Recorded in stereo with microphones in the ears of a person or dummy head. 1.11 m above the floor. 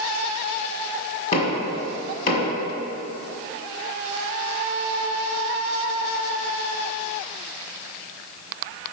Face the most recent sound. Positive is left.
turn(degrees=40)  # may be behind; listen again after turning